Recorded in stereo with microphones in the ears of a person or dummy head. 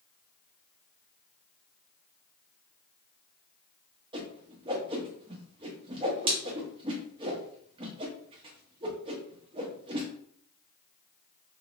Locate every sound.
4.1 s a whoosh: 25° right (ahead or behind), 0.6 m